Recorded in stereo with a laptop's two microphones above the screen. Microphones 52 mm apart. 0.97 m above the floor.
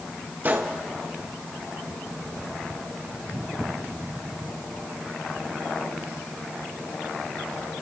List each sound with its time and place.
0.4 s a gunshot: 40° right (ahead or behind), 1.2 m